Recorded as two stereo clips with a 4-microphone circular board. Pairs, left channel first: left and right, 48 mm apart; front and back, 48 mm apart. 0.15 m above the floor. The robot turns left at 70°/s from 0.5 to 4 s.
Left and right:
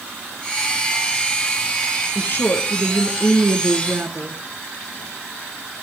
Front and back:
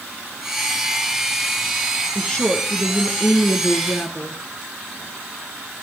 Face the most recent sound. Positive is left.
turn(degrees=-45)